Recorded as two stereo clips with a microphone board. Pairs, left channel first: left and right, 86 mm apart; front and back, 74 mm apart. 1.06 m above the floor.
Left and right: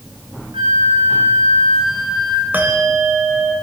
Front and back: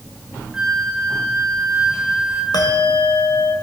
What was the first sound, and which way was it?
A flute, 95° right.